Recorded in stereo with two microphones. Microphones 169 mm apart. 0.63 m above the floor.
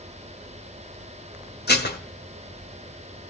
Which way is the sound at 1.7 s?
75° left (ahead or behind).